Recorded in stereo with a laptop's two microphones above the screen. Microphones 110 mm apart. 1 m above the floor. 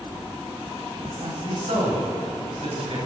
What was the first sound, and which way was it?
A man speaking, 85° right.